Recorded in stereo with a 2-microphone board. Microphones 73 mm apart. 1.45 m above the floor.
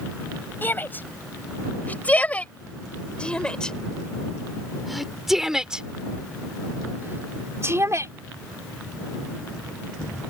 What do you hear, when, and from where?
0.6 s a shout: 30° left (ahead or behind); by 8.1 s 45° right (ahead or behind)